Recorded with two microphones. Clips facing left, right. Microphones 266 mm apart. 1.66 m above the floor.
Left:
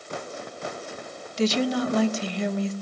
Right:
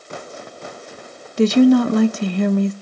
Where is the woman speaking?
60° right (ahead or behind), 0.7 m.